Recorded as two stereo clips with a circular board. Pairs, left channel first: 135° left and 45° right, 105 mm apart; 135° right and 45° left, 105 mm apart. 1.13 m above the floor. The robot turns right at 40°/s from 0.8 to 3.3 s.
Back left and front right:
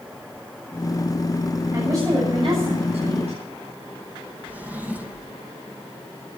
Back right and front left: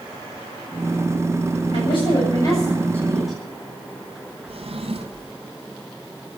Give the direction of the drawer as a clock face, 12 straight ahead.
11 o'clock.